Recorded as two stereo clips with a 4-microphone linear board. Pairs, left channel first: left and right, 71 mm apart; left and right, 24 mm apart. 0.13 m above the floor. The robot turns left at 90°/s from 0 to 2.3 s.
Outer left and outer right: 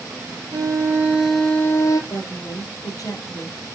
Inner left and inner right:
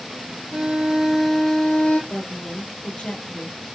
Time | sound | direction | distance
0.5 | a violin | 105° right | 1.5 m
2.1 | a woman speaking | 65° left (ahead or behind) | 2.5 m